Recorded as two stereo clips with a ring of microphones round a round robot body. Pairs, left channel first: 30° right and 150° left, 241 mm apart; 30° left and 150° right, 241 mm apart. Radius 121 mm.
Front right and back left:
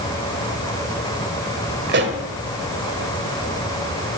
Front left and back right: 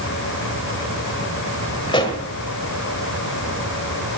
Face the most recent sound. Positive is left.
turn(degrees=100)